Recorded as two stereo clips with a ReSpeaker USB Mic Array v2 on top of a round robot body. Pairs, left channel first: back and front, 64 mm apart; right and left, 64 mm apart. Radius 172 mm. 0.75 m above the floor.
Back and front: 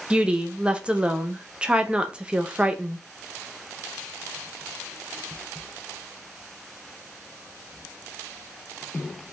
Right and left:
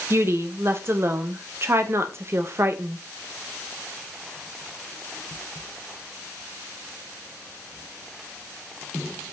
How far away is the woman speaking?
About 0.5 m.